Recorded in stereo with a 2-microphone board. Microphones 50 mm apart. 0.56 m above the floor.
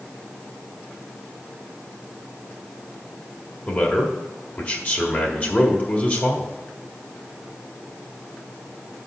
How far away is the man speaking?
About 1.6 m.